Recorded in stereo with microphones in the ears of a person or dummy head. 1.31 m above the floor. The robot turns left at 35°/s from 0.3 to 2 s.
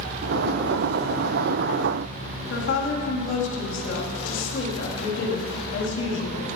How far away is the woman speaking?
About 1.9 m.